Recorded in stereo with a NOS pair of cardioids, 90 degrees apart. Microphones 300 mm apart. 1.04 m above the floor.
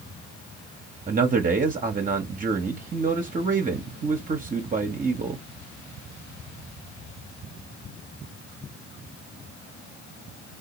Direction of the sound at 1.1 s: 30° right.